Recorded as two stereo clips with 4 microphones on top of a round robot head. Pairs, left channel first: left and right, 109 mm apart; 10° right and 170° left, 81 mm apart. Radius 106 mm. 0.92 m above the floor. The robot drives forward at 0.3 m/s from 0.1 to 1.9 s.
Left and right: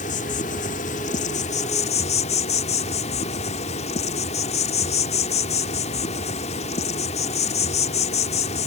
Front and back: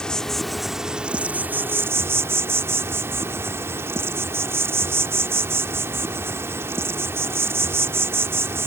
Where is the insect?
70° left; by 8.7 s 110° left.